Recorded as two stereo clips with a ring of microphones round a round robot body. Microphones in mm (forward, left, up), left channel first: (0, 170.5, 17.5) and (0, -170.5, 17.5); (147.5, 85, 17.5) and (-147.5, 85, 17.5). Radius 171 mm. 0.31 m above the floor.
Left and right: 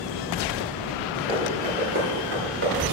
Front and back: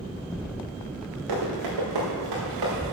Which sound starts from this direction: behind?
Running footsteps, at 1.3 s.